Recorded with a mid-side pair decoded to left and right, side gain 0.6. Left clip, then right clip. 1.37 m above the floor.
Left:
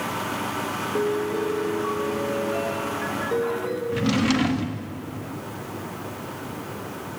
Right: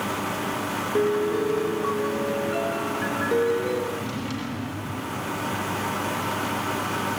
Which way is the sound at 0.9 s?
15° right.